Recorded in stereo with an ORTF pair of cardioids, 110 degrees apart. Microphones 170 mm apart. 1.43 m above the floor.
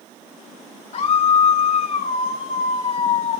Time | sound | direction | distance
0.9 | a scream | 40° left | 1.2 m